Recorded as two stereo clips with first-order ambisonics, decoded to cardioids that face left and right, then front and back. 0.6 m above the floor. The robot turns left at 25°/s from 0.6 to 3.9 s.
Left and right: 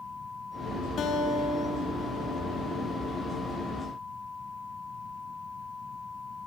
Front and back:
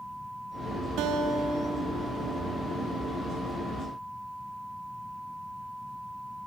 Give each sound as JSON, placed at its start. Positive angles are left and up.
{"t": 1.0, "sound": "a guitar", "azimuth_deg": 150, "distance_m": 4.5}